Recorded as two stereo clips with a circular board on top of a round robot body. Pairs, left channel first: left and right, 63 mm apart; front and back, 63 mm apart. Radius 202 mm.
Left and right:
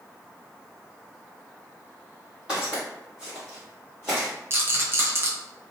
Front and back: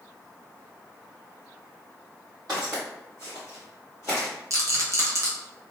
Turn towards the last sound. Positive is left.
turn(degrees=-140)